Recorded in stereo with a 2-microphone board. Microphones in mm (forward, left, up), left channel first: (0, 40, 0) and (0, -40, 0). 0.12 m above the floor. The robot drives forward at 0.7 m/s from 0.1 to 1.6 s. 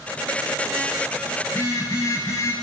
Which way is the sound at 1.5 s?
35° left (ahead or behind).